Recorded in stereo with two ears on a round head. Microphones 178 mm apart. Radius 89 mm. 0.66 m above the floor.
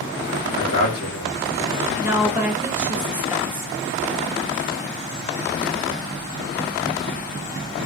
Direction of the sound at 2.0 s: 10° right (ahead or behind).